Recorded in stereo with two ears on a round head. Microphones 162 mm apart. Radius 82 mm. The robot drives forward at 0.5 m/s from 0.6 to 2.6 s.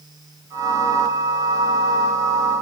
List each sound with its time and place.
Only background noise.